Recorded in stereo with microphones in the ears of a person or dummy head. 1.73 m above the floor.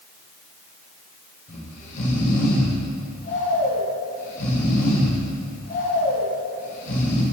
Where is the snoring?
45° left (ahead or behind), 1.5 m.